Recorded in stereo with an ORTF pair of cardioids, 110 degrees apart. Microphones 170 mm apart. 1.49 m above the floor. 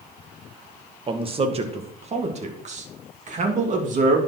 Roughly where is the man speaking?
Ahead right.